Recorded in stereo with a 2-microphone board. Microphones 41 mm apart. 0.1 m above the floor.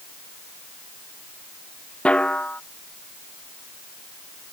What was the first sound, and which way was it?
A snare drum, 25° left (ahead or behind).